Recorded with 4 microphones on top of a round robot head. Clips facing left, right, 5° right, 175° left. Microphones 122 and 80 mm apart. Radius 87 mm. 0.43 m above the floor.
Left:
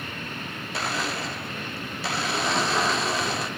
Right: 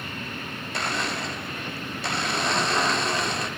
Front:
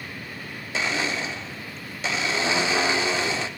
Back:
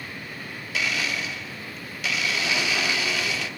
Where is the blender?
5° left, 1.4 m.